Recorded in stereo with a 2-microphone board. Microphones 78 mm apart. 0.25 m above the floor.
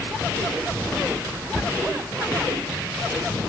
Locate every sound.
1.5 s a cupboard door: 5° left (ahead or behind), 0.9 m